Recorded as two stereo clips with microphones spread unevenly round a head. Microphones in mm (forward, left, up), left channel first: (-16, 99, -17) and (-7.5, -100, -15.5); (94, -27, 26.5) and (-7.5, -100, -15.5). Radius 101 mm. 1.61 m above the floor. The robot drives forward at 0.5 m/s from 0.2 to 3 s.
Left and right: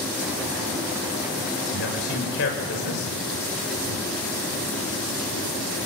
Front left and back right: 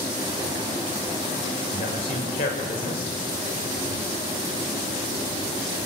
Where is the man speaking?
60° left, 6 m; by 3.1 s 65° left, 6 m.